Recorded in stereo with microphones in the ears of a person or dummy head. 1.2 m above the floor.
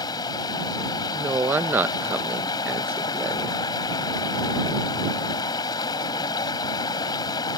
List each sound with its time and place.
0.0 s running water: 20° left (ahead or behind)
1.1 s a woman speaking: 10° right (ahead or behind)